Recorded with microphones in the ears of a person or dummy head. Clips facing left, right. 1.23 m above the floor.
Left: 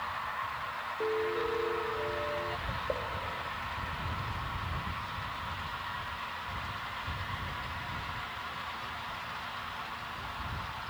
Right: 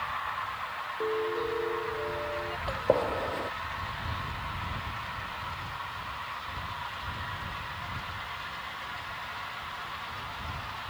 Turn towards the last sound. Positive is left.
turn(degrees=-80)